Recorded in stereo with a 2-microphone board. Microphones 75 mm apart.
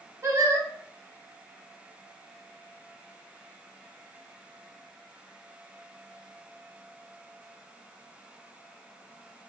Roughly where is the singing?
Right.